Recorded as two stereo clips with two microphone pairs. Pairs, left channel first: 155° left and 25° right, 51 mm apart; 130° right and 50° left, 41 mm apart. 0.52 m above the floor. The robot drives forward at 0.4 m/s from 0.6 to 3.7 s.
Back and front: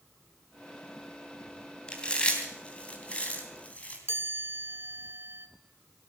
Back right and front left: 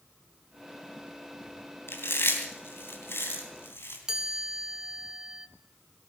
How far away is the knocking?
No knocking in this recording.